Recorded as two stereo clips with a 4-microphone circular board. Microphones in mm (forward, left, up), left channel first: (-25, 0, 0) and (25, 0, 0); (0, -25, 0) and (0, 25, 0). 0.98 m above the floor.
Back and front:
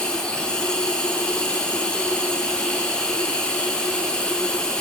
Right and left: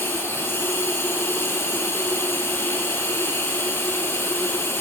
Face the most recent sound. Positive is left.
turn(degrees=-110)